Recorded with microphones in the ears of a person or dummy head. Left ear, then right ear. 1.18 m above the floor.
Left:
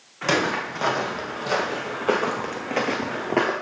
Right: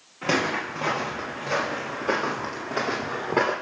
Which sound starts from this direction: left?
Footsteps, at 0.2 s.